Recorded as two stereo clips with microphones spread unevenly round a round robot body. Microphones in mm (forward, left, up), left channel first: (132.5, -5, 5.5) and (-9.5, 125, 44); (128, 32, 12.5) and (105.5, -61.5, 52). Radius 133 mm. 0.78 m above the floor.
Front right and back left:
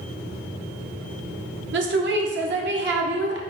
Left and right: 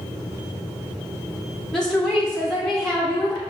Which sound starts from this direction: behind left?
A woman speaking, at 1.7 s.